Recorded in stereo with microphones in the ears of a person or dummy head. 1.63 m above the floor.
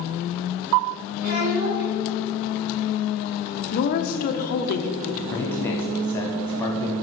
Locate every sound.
1.2 s a child speaking: 50° right (ahead or behind), 2 m
3.7 s a woman speaking: 45° left (ahead or behind), 1.0 m
5.3 s a man speaking: 15° left (ahead or behind), 0.9 m